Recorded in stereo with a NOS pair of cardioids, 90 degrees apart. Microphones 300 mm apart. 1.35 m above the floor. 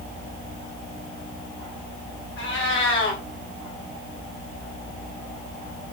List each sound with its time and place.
2.4 s a cat meowing: 40° left, 4.5 m